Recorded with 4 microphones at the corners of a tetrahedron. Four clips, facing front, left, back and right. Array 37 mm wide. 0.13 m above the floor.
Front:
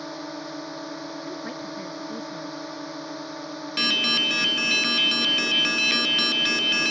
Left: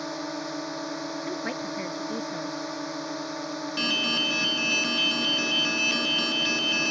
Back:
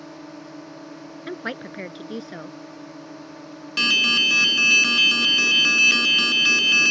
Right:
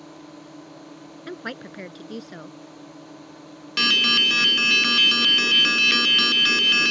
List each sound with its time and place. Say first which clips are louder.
0.0 s a drone: left 10 dB, front 5 dB; 65° left
1.3 s a woman speaking: right 1 dB, back 2 dB; 170° right
3.8 s an alarm: right 8 dB, back 4 dB; 80° right